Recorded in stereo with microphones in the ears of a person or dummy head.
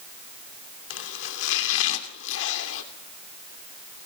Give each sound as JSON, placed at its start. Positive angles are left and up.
{"t": 0.9, "sound": "chopping", "side_deg": 75, "distance_m": 2.5}